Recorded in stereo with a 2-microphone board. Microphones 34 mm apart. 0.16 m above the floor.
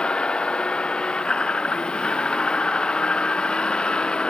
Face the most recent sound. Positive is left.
turn(degrees=25)  # may be behind; listen again after turning